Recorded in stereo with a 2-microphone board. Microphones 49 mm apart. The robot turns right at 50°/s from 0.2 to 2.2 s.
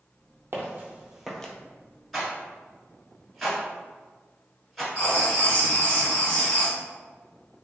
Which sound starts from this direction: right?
Footsteps, at 0.5 s.